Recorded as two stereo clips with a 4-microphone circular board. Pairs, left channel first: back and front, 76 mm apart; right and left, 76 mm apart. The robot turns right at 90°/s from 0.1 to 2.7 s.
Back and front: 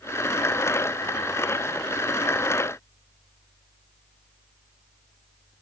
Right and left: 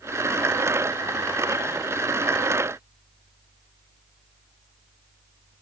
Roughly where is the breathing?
I don't hear breathing.